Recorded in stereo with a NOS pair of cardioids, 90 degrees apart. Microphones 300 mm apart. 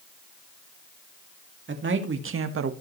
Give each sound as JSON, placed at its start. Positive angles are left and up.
{"t": 1.7, "sound": "a man speaking", "azimuth_deg": -40, "distance_m": 2.5}